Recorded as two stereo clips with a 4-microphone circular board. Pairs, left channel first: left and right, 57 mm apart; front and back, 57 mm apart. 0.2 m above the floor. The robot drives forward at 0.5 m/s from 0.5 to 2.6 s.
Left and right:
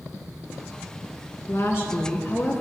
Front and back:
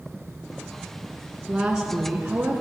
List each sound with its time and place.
1.5 s a woman speaking: 100° left, 1.7 m; by 2.6 s 120° left, 1.9 m